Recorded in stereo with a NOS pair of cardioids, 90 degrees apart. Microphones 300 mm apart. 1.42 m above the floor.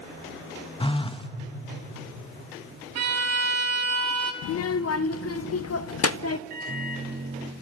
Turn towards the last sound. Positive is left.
turn(degrees=-30)